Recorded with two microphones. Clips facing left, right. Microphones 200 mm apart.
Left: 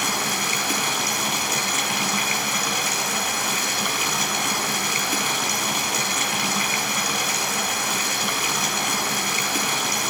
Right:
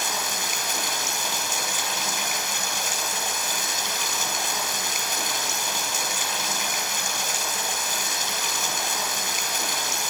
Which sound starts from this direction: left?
Running water, at 0.0 s.